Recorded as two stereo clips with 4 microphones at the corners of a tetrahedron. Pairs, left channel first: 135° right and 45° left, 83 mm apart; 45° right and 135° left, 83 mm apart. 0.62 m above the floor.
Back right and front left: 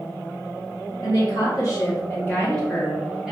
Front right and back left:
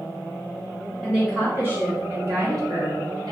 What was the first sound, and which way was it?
A woman speaking, 145° right.